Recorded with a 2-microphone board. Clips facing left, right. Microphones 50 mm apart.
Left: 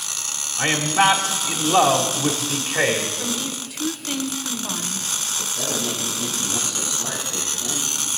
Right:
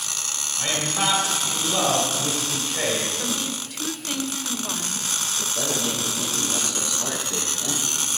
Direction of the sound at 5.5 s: 60° right (ahead or behind).